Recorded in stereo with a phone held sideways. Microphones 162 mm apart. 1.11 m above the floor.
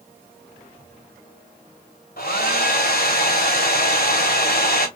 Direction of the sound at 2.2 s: 70° left (ahead or behind).